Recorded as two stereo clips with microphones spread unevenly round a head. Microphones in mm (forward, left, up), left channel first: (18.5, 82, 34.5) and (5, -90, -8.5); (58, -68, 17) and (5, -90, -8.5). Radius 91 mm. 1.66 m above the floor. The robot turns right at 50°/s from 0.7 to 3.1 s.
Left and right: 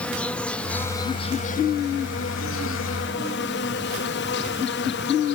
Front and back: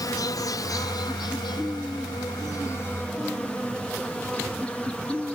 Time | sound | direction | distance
0.0 | an insect | 5° right | ?